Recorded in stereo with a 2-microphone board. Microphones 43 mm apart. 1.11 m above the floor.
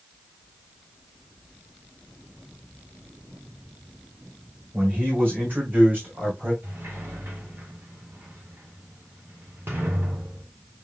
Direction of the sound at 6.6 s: 70° right (ahead or behind).